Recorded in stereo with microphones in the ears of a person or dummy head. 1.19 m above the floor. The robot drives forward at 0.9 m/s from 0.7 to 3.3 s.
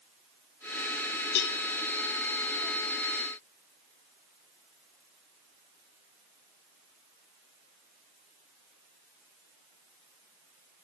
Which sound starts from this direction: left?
A cowbell, at 1.4 s.